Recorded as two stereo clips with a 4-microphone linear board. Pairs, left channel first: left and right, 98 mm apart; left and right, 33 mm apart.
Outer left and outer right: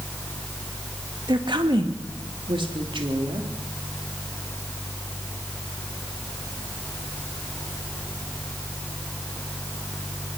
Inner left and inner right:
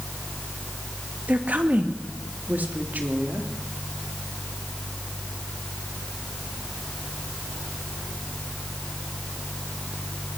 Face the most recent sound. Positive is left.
turn(degrees=-60)  # may be behind; listen again after turning